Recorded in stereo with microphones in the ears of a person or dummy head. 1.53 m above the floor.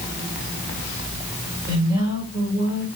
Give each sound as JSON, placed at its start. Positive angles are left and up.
{"t": 1.7, "sound": "a woman speaking", "side_deg": -25, "distance_m": 5.0}